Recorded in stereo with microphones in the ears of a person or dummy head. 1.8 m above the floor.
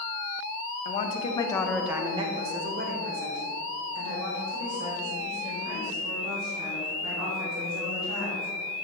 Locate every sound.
0.8 s a woman speaking: 45° left (ahead or behind), 0.8 m; by 8.5 s 85° right, 4.5 m